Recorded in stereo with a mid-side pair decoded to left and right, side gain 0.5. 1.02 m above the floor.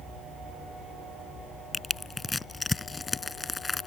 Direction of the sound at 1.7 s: 20° left.